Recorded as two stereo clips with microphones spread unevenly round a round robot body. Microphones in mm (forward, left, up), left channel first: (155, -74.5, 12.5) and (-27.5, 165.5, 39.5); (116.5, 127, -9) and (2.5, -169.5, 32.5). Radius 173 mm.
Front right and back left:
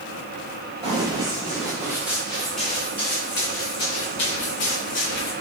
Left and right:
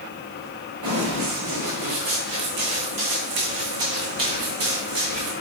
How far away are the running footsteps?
About 4 m.